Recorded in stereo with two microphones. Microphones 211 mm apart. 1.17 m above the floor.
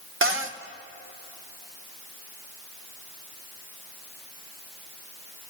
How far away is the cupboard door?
About 0.9 m.